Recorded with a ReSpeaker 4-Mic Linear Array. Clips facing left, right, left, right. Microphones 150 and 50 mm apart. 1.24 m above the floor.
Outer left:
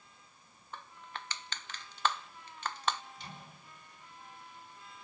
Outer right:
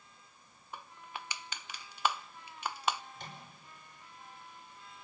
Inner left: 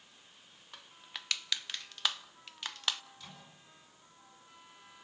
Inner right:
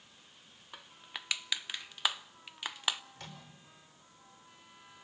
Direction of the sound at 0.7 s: 10° right (ahead or behind).